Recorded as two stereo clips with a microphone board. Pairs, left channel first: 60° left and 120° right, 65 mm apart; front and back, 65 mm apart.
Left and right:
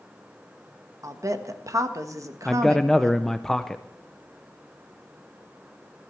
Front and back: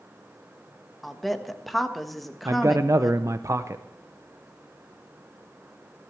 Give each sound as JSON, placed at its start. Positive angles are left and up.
{"t": 1.0, "sound": "a woman speaking", "azimuth_deg": -90, "distance_m": 1.4}
{"t": 2.5, "sound": "a man speaking", "azimuth_deg": 145, "distance_m": 0.5}